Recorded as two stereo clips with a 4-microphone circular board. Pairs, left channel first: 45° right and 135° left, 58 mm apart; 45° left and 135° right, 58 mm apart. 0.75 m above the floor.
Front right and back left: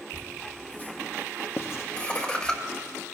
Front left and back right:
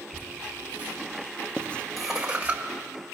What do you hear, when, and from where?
0.1 s laughter: 15° left, 1.8 m; by 2.6 s 110° right, 1.0 m
1.6 s writing: 20° right, 0.6 m